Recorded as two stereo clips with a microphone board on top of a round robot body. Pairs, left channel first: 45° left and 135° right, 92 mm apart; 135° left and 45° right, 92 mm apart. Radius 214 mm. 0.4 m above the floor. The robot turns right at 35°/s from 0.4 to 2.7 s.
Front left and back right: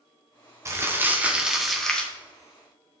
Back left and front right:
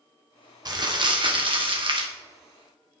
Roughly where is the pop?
I don't hear a pop.